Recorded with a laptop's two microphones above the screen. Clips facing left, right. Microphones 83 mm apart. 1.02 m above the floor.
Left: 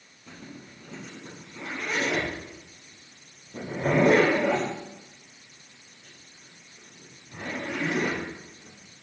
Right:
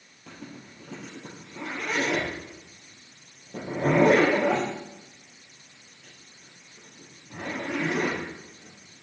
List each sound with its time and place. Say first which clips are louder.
0.3 s a zipper: right 1 dB; 75° right (ahead or behind), 4 m